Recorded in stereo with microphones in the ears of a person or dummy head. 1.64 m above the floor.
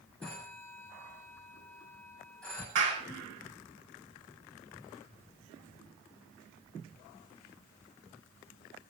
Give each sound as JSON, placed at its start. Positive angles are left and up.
{"t": 0.2, "sound": "a phone ringing", "side_deg": 5, "distance_m": 8.0}
{"t": 2.8, "sound": "a clap", "side_deg": -70, "distance_m": 7.5}